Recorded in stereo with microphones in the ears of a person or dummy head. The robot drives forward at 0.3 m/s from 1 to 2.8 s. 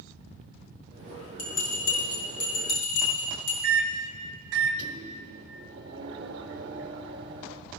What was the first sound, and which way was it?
A bell, 80° left.